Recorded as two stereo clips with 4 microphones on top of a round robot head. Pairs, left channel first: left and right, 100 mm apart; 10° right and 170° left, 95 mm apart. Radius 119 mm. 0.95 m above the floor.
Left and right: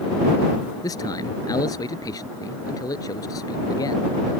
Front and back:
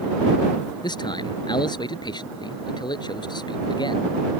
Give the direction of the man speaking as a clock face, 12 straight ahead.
11 o'clock.